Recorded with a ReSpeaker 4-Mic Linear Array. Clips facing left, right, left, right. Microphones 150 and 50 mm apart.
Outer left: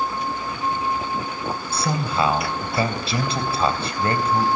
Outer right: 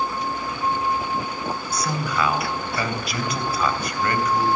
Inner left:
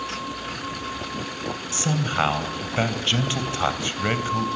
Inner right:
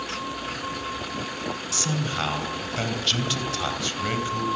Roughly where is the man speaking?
Left.